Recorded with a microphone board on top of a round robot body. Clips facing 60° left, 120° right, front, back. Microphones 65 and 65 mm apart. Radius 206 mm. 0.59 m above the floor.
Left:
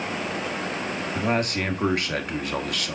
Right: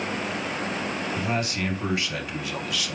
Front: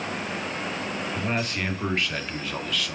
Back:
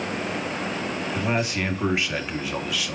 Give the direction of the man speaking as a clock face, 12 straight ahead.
9 o'clock.